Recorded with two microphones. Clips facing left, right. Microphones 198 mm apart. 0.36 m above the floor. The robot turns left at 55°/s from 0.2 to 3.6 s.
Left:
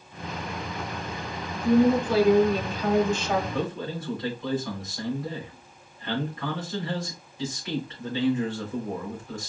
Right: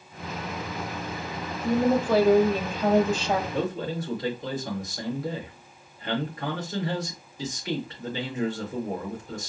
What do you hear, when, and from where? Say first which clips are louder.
1.5 s a woman speaking: left 3 dB; 40° right, 1.3 m; by 3.4 s 150° right, 1.3 m
3.5 s a man speaking: right 2 dB; 45° right (ahead or behind), 2.5 m; by 9.5 s 40° right (ahead or behind), 2.5 m